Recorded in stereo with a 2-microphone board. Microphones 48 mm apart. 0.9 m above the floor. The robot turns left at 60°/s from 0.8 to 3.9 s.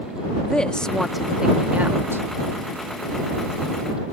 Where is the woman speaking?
20° left; by 2.3 s 65° right.